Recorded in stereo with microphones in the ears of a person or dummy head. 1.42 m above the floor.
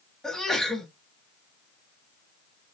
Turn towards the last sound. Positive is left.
turn(degrees=0)  # may be behind; listen again after turning